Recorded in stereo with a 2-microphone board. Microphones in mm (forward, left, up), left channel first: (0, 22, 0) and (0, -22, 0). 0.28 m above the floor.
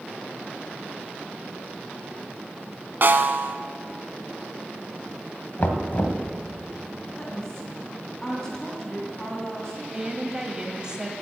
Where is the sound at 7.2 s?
15° left (ahead or behind), 2.5 m.